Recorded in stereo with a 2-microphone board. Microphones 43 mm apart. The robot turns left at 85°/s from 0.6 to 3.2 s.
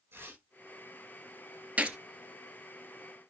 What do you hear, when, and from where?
0.1 s tearing paper: 65° right (ahead or behind), 7 m
1.8 s a gunshot: 30° right (ahead or behind), 0.9 m; by 2.0 s 15° right (ahead or behind), 0.9 m